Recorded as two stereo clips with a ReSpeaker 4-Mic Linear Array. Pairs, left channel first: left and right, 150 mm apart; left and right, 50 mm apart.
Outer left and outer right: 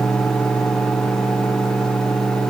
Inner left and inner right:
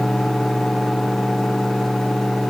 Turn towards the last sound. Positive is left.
No sound to turn to.